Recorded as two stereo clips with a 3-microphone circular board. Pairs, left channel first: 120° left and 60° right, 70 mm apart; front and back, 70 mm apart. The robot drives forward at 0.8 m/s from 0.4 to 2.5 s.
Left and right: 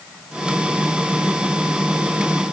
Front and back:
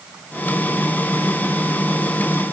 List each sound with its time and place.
Only background noise.